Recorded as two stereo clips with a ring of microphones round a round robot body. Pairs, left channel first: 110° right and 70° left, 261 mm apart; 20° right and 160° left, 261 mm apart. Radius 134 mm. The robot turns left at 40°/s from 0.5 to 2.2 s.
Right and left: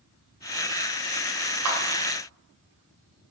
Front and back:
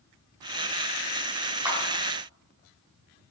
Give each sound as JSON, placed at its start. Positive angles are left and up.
{"t": 1.6, "sound": "a clap", "azimuth_deg": 75, "distance_m": 3.0}